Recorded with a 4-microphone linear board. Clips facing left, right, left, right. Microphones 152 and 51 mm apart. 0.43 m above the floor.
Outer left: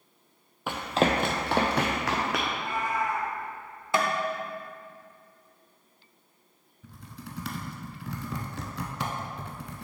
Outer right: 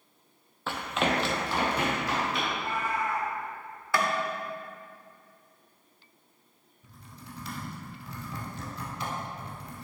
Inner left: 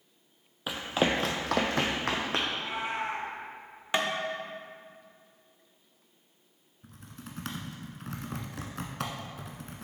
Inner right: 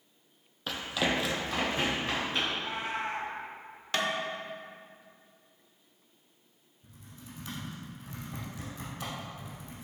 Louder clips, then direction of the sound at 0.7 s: Outer left 4 dB, inner left 3 dB; 15° left (ahead or behind).